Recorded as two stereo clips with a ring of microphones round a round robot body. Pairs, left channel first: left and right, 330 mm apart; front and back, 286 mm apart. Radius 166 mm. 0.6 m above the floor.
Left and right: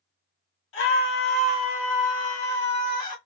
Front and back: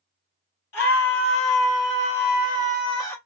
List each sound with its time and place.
0.7 s a scream: 40° left, 3 m; by 3.2 s 75° left, 1.3 m